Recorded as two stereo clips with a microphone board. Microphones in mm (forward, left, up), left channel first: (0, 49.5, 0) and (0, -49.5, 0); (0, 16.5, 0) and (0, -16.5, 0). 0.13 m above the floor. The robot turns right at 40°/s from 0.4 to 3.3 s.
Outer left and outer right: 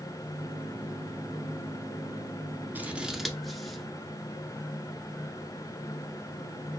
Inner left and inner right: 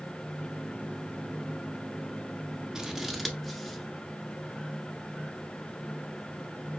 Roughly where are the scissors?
Centre.